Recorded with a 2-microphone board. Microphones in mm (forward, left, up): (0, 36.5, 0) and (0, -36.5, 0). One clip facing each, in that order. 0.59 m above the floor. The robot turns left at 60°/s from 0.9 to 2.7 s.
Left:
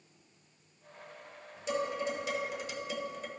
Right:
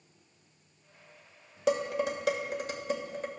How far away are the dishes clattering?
About 1.3 m.